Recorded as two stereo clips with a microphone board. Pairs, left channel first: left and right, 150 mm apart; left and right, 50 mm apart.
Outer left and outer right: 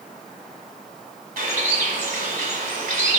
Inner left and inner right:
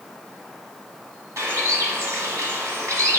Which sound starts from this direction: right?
A bird, at 1.4 s.